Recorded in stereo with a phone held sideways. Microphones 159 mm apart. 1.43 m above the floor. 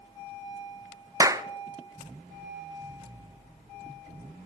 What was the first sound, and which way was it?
A clap, 20° right (ahead or behind).